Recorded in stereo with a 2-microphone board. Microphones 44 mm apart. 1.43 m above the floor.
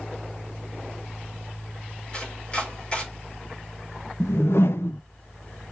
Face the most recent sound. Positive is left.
turn(degrees=70)  # may be behind; listen again after turning